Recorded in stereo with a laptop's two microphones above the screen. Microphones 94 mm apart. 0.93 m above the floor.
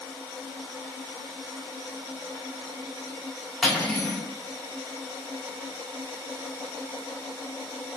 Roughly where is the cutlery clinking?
Centre.